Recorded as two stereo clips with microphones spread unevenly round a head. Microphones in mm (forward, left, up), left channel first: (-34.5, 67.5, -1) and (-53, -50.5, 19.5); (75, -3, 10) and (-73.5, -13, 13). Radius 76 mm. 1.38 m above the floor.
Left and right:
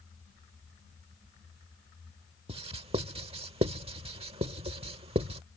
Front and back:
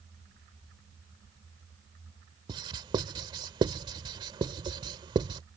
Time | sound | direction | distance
2.5 | writing | 120° right | ?